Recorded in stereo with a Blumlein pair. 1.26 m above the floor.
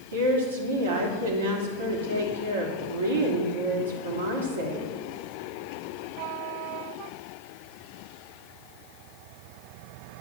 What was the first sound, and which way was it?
A woman speaking, 60° right.